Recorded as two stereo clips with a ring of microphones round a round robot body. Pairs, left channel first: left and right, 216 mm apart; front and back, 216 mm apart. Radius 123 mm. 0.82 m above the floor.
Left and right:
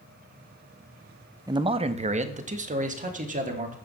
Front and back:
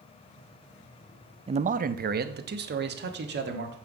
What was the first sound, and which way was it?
A man speaking, 145° right.